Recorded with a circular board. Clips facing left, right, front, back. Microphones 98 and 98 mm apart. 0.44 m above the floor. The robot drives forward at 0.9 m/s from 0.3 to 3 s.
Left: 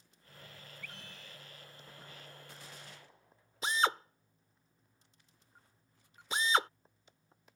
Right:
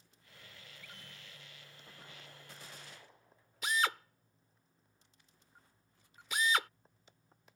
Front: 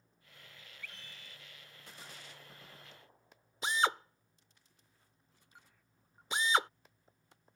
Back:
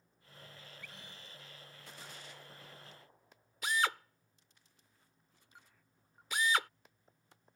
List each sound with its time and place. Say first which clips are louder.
0.8 s a scream: left 4 dB, even; 100° left; by 1.4 s 115° left
3.6 s a drill: left 2 dB, front 2 dB; 50° left